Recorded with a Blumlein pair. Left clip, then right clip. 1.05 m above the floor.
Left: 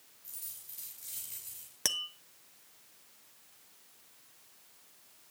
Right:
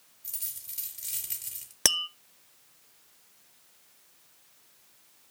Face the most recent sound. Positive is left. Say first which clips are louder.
# right 8 dB
turn(degrees=-65)